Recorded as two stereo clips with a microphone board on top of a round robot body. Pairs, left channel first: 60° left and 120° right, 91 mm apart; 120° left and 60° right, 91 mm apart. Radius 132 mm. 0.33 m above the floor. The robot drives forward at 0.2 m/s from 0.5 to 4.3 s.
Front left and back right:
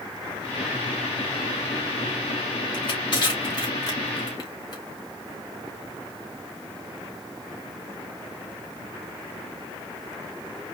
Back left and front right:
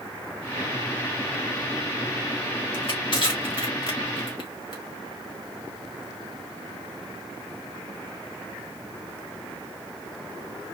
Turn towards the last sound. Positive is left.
turn(degrees=105)